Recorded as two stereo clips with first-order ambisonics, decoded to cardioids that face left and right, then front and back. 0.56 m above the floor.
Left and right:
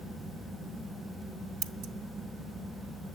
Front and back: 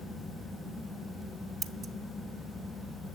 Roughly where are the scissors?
Behind right.